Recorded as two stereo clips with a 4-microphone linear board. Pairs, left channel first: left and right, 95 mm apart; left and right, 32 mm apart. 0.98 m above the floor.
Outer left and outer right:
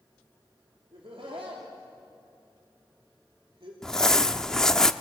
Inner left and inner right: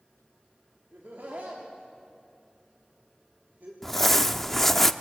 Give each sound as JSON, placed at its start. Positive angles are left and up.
{"t": 0.9, "sound": "laughter", "side_deg": -75, "distance_m": 3.0}
{"t": 3.8, "sound": "crumpling", "side_deg": 5, "distance_m": 0.7}